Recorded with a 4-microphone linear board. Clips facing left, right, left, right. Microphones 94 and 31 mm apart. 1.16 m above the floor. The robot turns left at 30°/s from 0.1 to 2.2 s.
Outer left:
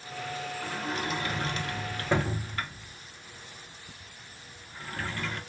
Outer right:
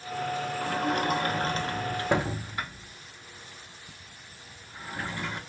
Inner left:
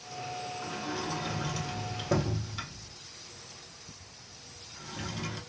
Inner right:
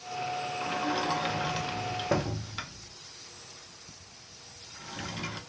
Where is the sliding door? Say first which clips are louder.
Outer right 7 dB, inner right 7 dB; 60° right (ahead or behind), 0.6 m; by 5.4 s 15° right (ahead or behind), 0.6 m.